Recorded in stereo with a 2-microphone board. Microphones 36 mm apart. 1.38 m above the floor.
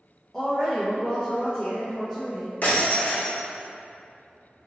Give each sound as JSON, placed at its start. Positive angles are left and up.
{"t": 0.3, "sound": "a woman speaking", "side_deg": 10, "distance_m": 0.8}
{"t": 2.6, "sound": "breaking glass", "side_deg": 55, "distance_m": 1.4}